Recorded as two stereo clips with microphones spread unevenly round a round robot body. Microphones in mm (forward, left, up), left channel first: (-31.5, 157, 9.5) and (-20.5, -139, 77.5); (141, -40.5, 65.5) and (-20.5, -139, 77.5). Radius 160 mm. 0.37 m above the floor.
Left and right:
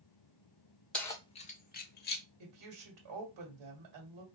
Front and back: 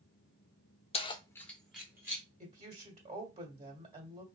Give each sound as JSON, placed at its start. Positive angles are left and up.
{"t": 0.9, "sound": "keys jangling", "azimuth_deg": 30, "distance_m": 0.5}
{"t": 2.4, "sound": "a woman speaking", "azimuth_deg": -90, "distance_m": 1.7}